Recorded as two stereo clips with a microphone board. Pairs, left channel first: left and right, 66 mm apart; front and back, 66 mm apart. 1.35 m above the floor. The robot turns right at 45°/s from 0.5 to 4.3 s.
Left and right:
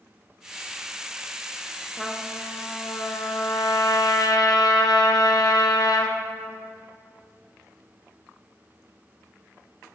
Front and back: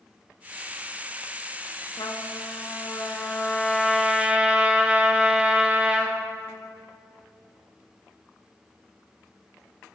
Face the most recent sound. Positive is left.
turn(degrees=110)